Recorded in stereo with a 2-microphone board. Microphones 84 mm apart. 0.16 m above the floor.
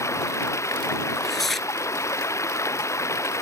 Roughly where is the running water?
Left.